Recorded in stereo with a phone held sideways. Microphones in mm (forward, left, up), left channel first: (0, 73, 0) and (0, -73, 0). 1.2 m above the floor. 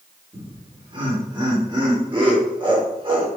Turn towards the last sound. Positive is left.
turn(degrees=-30)  # may be behind; listen again after turning